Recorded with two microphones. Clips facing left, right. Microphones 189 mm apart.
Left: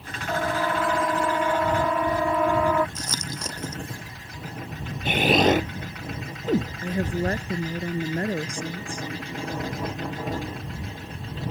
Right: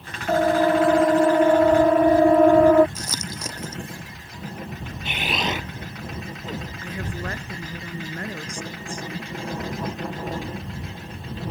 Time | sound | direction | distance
0.3 | a siren | 35° right (ahead or behind) | ?
3.0 | crumpling | 5° right (ahead or behind) | ?
5.0 | an explosion | 45° left (ahead or behind) | ?
6.8 | a woman speaking | 35° left (ahead or behind) | ?